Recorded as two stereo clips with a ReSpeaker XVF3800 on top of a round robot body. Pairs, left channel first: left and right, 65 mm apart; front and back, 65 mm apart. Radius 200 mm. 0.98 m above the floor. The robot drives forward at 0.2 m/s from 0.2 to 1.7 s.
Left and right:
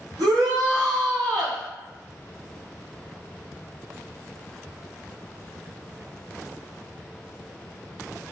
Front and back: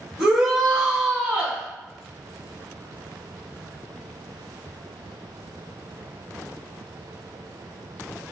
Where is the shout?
95° right, 1.4 m; by 1.6 s 105° right, 1.5 m.